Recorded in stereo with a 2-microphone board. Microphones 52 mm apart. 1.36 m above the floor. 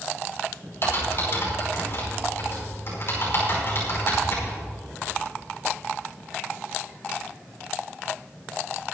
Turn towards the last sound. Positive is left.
turn(degrees=50)  # may be behind; listen again after turning